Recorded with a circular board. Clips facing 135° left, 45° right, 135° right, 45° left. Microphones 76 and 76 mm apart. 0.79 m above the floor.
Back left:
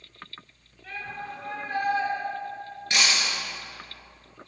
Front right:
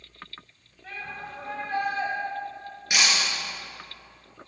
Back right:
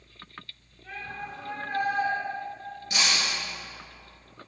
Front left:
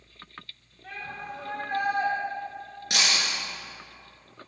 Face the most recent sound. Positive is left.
turn(degrees=35)